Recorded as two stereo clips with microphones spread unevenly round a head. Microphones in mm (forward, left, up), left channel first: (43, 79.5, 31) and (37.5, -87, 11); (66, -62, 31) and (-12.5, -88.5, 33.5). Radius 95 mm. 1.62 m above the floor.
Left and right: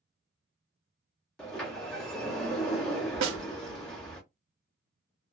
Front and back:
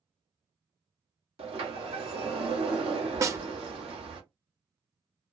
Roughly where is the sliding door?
Behind.